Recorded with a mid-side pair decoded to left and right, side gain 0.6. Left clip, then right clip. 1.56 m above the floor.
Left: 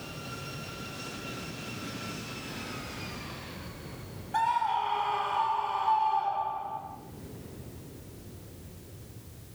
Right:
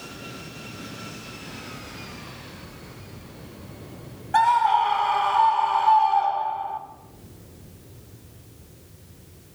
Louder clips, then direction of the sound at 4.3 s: Right 9 dB; 55° right.